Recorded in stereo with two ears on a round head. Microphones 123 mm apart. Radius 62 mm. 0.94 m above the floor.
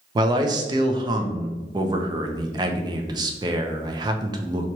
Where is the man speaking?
30° right (ahead or behind), 0.6 m.